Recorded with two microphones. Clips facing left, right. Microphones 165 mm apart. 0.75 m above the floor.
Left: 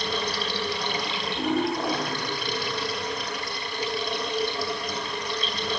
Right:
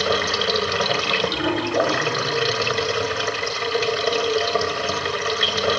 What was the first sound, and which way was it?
Running water, 75° right (ahead or behind).